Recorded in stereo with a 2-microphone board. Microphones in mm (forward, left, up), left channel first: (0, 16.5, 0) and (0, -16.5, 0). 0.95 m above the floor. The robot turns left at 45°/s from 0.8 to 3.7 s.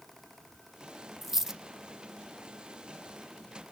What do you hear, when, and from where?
1.2 s a dropped coin: 5° right (ahead or behind), 0.6 m; by 1.6 s 15° right (ahead or behind), 0.6 m